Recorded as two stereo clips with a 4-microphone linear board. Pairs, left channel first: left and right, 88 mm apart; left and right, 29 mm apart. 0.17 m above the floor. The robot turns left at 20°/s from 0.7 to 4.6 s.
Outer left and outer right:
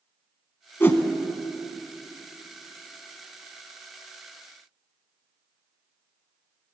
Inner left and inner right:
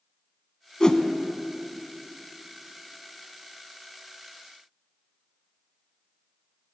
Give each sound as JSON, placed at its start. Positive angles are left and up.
{"t": 0.8, "sound": "a whoosh", "side_deg": 25, "distance_m": 0.6}